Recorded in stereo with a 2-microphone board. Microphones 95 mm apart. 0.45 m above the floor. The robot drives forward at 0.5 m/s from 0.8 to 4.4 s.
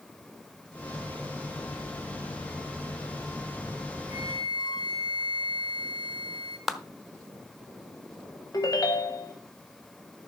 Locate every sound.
4.1 s a flute: 55° left (ahead or behind), 1.9 m
6.7 s a clap: centre (ahead or behind), 1.0 m
8.5 s a ringtone: 40° left (ahead or behind), 1.6 m